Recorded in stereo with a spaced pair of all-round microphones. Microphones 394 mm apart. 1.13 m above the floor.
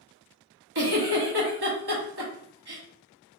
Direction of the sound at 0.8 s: 70° right (ahead or behind).